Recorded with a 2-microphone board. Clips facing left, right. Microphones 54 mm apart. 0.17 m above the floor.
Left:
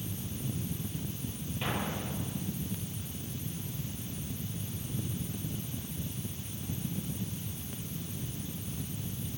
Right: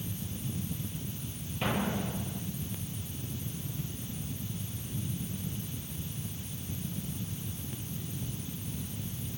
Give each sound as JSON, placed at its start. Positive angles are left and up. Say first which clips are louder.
{"t": 1.6, "sound": "an explosion", "louder": "right 4 dB", "side_deg": -15, "distance_m": 5.0}